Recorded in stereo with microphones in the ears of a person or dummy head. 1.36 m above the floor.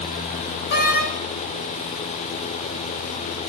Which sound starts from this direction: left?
A door slam, at 0.7 s.